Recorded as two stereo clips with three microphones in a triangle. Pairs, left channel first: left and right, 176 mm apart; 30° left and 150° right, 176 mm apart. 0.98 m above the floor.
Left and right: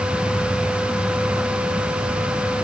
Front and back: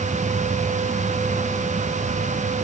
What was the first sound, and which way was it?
Only background noise.